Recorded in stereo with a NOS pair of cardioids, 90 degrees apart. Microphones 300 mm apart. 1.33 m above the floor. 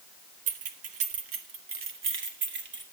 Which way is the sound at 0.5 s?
65° right.